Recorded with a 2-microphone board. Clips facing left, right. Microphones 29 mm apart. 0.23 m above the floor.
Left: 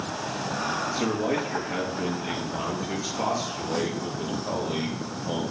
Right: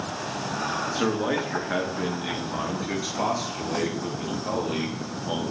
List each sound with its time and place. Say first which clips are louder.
0.9 s a man speaking: right 2 dB; 65° right (ahead or behind), 3 m; by 5.5 s 70° right (ahead or behind), 6 m